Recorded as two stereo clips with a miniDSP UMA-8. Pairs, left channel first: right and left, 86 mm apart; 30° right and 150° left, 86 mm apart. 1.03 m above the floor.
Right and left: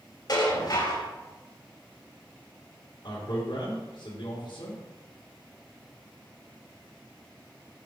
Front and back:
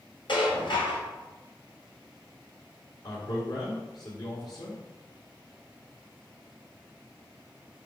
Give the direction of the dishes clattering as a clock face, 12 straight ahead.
2 o'clock.